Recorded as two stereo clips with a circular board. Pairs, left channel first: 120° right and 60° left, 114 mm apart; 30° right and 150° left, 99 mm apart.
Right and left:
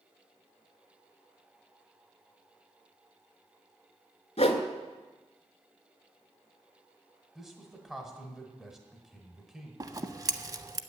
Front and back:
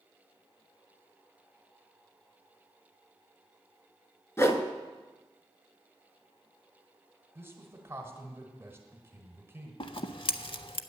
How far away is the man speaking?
About 1.4 m.